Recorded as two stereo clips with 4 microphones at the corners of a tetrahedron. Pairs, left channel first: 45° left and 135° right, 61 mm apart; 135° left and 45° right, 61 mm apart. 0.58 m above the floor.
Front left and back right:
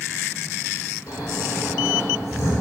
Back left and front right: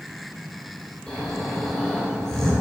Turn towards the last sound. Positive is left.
turn(degrees=55)